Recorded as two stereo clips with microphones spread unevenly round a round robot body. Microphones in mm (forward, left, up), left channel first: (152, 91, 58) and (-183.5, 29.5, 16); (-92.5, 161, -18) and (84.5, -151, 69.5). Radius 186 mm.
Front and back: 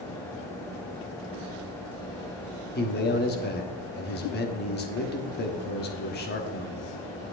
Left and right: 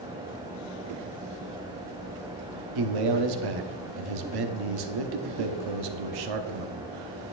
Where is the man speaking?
50° right, 1.3 m.